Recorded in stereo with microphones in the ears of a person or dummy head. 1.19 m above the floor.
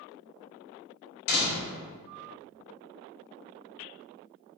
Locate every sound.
1.3 s a door slam: 80° left, 1.6 m